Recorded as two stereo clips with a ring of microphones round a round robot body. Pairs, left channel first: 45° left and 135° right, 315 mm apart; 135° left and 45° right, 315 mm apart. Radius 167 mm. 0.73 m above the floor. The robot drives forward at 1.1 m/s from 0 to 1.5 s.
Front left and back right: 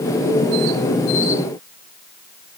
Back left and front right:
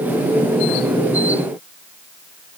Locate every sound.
Only background noise.